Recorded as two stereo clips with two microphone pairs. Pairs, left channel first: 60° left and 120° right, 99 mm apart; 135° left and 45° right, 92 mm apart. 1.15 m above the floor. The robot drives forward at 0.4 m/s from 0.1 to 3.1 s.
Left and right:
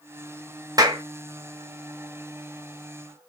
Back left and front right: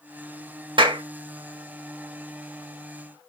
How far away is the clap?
About 0.9 m.